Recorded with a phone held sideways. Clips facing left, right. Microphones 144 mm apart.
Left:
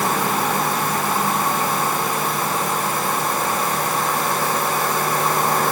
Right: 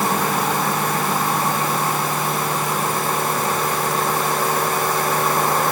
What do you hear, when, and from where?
Only background noise.